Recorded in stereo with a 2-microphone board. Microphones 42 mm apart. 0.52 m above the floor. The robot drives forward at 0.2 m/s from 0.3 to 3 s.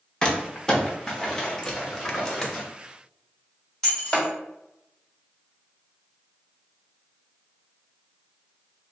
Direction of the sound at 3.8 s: 10° left (ahead or behind).